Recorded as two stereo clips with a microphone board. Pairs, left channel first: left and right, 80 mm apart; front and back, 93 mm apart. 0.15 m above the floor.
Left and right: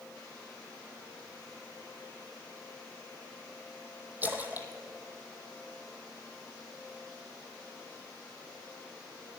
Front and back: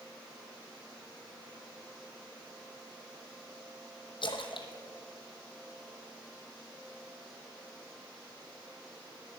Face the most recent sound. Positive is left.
turn(degrees=-20)